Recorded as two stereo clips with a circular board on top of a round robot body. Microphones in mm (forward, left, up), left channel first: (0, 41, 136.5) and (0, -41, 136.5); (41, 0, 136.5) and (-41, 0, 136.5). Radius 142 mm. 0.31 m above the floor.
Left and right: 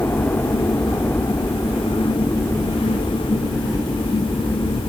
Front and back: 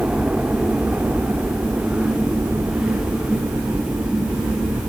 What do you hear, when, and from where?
0.0 s a helicopter: 120° left; by 4.9 s 155° left